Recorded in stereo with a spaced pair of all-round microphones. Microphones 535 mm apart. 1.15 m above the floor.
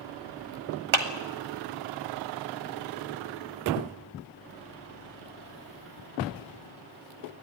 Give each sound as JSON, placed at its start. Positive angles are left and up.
{"t": 0.9, "sound": "a clap", "side_deg": -60, "distance_m": 1.9}